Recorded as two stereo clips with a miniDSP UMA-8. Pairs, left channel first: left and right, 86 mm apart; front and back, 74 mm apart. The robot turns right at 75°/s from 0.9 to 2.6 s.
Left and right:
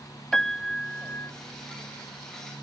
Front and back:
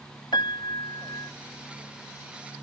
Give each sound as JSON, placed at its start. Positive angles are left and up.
{"t": 0.3, "sound": "a piano", "azimuth_deg": 5}